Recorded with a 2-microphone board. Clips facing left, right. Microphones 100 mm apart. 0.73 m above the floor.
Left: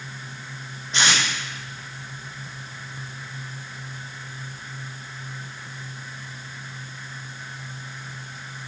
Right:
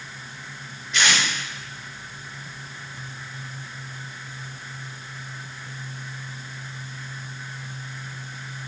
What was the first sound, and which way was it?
Tape being pulled, 35° left (ahead or behind).